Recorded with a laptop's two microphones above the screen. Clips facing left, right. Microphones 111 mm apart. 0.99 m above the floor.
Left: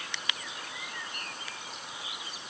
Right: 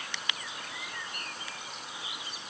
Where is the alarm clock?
No alarm clock in this recording.